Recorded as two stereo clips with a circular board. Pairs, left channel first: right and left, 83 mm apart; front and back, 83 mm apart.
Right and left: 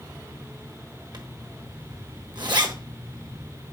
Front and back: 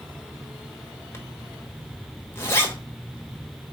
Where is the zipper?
60° left, 1.4 m.